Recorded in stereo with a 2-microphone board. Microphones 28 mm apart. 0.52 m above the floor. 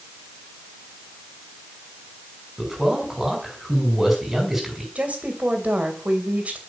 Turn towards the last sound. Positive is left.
turn(degrees=-60)  # may be behind; listen again after turning